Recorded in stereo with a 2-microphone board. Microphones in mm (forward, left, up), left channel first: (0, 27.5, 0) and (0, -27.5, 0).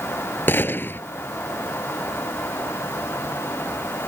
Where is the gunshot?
40° left (ahead or behind).